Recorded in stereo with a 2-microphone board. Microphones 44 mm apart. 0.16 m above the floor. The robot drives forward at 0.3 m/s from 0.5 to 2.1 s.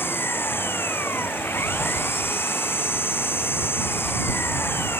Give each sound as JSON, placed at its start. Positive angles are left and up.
{"t": 0.0, "sound": "an engine running", "side_deg": 65}